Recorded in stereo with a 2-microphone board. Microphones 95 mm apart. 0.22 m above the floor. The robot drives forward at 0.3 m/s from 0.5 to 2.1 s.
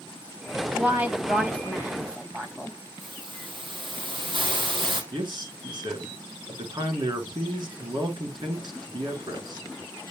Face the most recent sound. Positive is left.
turn(degrees=-55)  # may be behind; listen again after turning